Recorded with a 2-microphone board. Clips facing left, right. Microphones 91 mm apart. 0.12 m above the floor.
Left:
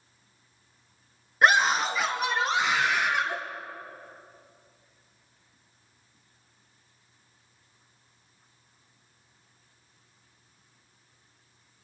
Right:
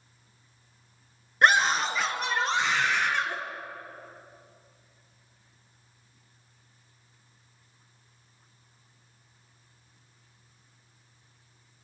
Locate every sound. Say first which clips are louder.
1.4 s a scream: left 1 dB; centre (ahead or behind), 2 m; by 3.4 s 5° left (ahead or behind), 3 m